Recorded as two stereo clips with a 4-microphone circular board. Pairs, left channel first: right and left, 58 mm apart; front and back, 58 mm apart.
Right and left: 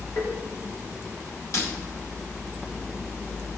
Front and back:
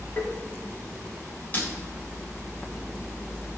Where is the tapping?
50° right, 3.5 m.